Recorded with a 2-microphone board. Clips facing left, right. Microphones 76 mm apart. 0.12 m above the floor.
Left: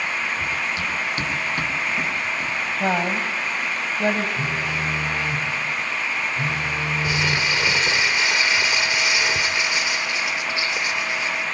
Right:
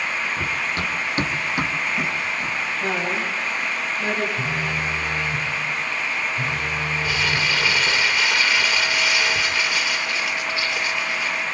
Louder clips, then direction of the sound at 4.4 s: Even; 25° left (ahead or behind).